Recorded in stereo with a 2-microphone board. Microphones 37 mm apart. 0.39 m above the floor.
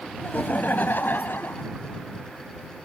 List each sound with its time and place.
0.2 s laughter: 45° left (ahead or behind); by 1.7 s 70° left (ahead or behind)